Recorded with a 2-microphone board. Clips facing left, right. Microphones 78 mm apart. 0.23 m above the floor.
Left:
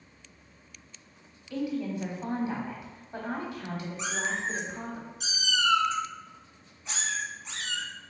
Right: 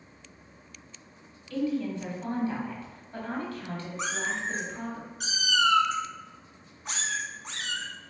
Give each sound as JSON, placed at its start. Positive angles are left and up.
{"t": 1.5, "sound": "a woman speaking", "side_deg": 20, "distance_m": 1.0}
{"t": 4.0, "sound": "a cat meowing", "side_deg": -55, "distance_m": 0.7}